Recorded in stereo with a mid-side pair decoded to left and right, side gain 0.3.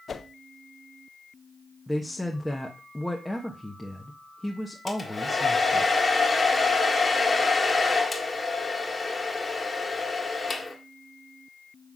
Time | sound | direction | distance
0.1 | a whoosh | 55° left | 0.8 m
1.9 | a woman speaking | 10° left | 1.3 m
4.9 | a hair dryer | 25° left | 1.9 m